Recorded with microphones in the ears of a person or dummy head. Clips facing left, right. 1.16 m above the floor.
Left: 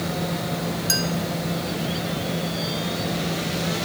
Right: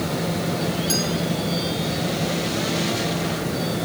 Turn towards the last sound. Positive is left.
turn(degrees=25)  # may be behind; listen again after turning